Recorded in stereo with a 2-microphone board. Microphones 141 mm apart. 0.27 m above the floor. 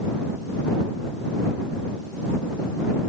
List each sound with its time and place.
Only background noise.